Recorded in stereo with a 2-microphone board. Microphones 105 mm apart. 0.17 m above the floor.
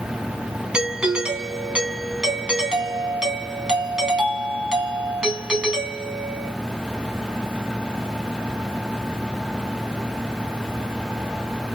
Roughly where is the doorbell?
Centre.